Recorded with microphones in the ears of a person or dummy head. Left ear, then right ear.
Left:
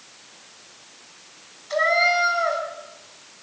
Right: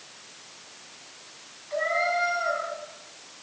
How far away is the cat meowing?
About 5.5 m.